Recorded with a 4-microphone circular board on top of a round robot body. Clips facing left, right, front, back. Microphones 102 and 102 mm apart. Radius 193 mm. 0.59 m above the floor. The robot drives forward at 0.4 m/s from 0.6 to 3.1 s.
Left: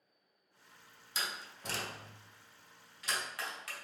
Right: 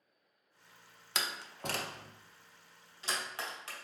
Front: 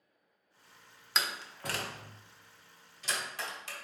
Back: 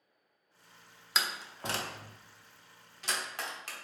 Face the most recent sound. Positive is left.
turn(degrees=-150)